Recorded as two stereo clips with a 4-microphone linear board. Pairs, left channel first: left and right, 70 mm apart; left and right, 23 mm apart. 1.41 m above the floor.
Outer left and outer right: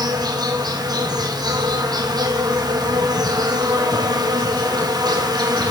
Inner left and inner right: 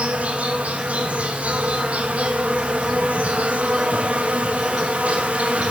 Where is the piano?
No piano in this recording.